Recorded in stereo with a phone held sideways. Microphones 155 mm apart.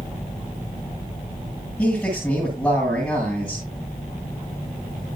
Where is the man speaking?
10° left (ahead or behind), 8.5 m.